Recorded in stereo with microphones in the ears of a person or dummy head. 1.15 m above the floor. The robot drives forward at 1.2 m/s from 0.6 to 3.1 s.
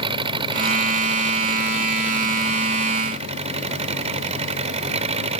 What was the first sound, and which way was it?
An engine running, 35° right (ahead or behind).